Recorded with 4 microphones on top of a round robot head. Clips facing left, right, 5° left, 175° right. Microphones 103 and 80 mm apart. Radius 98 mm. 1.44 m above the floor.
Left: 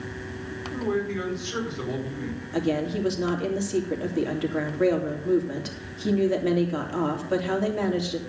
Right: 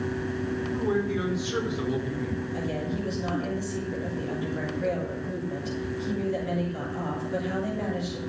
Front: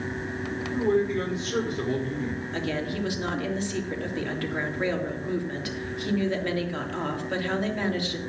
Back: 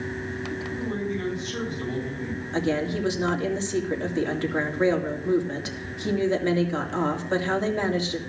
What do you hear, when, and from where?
0.7 s a man speaking: 5° right, 5 m
2.5 s a woman speaking: 120° left, 3 m